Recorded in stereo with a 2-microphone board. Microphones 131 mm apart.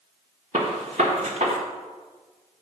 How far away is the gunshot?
About 1.4 m.